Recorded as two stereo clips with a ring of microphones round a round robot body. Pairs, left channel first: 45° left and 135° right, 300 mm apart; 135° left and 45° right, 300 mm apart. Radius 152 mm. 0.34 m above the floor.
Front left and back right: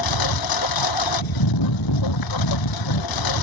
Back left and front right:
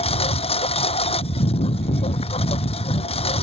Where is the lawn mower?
65° left.